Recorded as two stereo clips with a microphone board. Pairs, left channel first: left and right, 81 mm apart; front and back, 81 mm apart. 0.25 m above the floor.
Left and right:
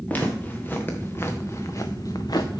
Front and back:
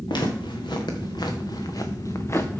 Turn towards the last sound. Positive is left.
turn(degrees=65)